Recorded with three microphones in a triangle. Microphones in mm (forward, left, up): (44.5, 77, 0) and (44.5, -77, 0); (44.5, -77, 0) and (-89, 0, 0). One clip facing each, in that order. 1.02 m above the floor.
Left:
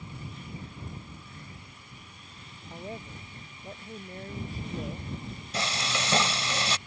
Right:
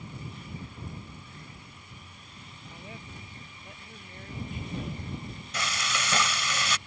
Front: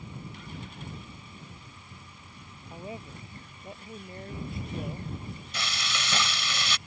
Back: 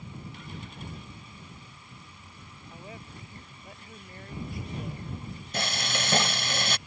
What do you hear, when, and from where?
2.7 s a woman speaking: 35° left
5.5 s frying: 135° left